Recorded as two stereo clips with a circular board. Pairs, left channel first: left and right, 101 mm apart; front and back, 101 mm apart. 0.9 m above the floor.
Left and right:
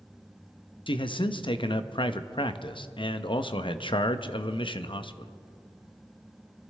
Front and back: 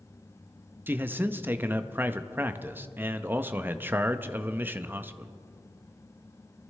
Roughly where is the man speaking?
Left.